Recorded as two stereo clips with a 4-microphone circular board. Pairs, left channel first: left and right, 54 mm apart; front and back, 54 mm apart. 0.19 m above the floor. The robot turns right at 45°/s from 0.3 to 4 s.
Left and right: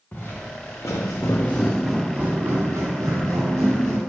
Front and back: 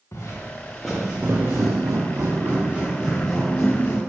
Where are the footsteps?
30° left, 1.0 m; by 4.0 s 45° right, 1.9 m.